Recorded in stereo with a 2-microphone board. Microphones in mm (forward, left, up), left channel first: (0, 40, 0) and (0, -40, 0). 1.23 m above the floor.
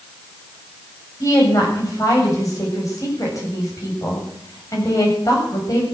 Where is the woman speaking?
40° left (ahead or behind), 7.5 m.